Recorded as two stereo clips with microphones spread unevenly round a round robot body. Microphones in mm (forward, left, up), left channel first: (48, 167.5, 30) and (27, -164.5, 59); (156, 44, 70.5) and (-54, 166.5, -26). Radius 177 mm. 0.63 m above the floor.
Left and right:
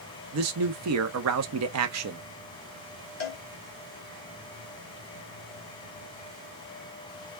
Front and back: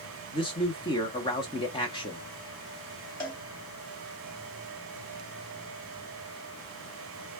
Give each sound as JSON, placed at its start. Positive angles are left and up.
{"t": 0.3, "sound": "a man speaking", "azimuth_deg": -120, "distance_m": 0.7}
{"t": 3.2, "sound": "a cowbell", "azimuth_deg": 25, "distance_m": 2.0}